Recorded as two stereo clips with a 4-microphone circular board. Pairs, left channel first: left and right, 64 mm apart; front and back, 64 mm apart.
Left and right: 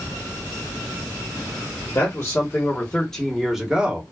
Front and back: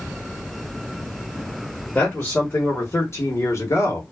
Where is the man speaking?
55° left, 1.2 m; by 4.0 s 30° right, 1.0 m.